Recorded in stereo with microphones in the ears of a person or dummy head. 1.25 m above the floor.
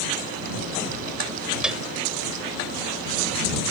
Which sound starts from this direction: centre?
A piano, at 1.6 s.